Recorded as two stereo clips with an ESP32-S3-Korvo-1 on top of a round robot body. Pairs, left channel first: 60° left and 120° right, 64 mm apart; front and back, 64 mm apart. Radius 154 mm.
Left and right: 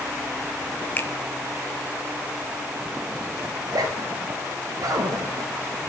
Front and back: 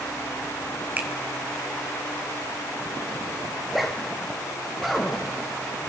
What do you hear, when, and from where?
1.0 s a finger snap: 115° left, 1.9 m
3.6 s a zipper: 90° right, 1.9 m